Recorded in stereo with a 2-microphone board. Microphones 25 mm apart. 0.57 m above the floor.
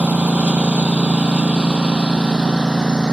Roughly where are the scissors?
No scissors in this recording.